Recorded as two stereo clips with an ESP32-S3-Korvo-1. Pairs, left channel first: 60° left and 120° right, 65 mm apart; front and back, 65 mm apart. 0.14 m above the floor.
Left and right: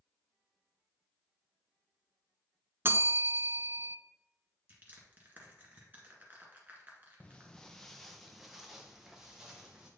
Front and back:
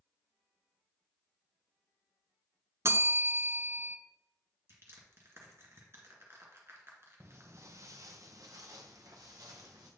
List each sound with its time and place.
2.9 s a bell: 160° right, 0.5 m
4.7 s crushing: 170° right, 1.8 m
7.2 s footsteps: 130° left, 0.5 m; by 9.9 s 155° left, 1.9 m